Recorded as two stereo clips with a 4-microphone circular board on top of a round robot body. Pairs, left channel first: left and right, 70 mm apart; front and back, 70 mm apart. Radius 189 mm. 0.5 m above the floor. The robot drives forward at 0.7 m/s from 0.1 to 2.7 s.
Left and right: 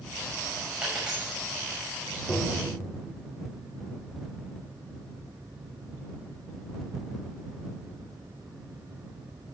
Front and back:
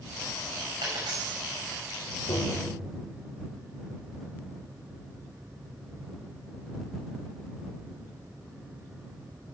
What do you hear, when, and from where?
0.8 s a dropped coin: 165° right, 4.5 m
2.3 s tapping: 20° left, 2.5 m